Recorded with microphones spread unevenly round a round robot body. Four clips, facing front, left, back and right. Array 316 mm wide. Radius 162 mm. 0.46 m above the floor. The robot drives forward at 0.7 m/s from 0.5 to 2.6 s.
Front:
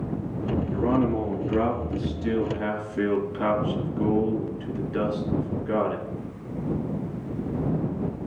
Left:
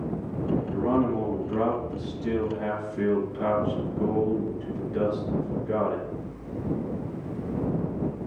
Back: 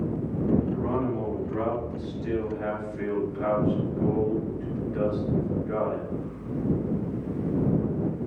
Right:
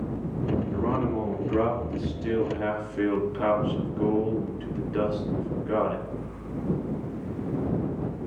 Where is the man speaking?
20° right, 6.5 m; by 6.0 s 25° right, 5 m.